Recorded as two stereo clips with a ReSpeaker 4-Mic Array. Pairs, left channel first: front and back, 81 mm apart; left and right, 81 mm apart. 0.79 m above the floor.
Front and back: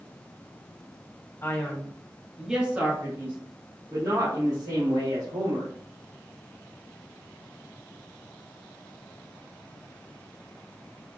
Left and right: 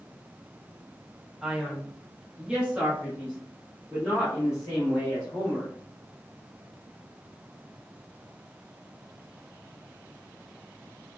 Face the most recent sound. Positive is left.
turn(degrees=-170)